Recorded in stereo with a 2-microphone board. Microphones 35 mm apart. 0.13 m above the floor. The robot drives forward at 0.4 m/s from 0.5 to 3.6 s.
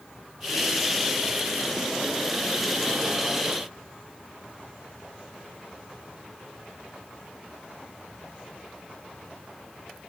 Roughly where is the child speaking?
No child speaking in this recording.